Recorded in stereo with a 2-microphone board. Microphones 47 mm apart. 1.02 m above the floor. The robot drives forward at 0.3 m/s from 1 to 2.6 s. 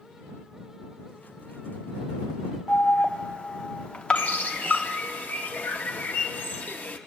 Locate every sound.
2.7 s an alarm: 25° left (ahead or behind), 0.8 m
4.2 s a bird: 40° left (ahead or behind), 1.1 m